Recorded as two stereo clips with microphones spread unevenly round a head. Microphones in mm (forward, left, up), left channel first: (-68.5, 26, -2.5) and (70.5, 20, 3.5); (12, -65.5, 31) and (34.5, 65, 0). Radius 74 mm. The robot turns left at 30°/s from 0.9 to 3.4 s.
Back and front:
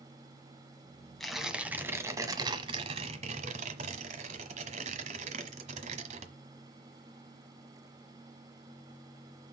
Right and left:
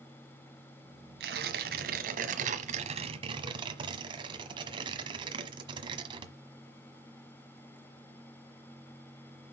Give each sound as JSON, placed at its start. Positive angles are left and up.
{"t": 1.2, "sound": "tearing paper", "azimuth_deg": 90, "distance_m": 1.3}